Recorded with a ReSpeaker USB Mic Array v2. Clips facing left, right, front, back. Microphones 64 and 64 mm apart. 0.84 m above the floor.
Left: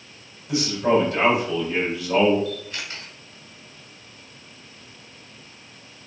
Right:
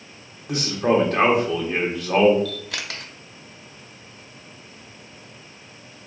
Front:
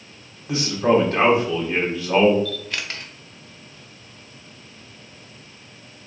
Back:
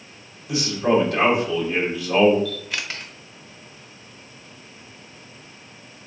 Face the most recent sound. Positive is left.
turn(degrees=-95)